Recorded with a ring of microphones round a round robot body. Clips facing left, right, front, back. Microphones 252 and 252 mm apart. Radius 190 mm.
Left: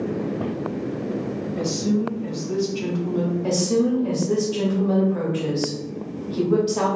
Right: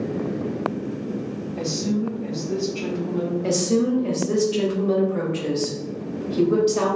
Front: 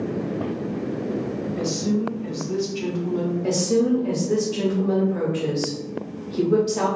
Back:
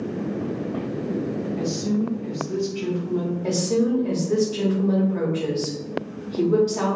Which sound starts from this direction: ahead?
A woman speaking, at 1.6 s.